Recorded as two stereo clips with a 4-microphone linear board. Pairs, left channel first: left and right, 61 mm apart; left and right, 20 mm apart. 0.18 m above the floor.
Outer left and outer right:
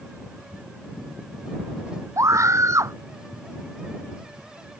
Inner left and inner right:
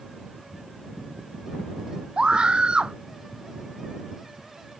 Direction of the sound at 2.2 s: 60° right (ahead or behind).